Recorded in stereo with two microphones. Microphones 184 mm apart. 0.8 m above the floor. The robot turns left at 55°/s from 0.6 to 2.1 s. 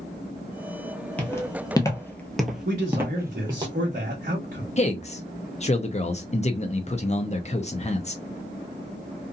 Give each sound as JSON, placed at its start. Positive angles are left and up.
{"t": 1.2, "sound": "footsteps", "side_deg": 10, "distance_m": 0.9}
{"t": 2.6, "sound": "a man speaking", "side_deg": -50, "distance_m": 1.0}
{"t": 4.8, "sound": "a man speaking", "side_deg": 35, "distance_m": 0.6}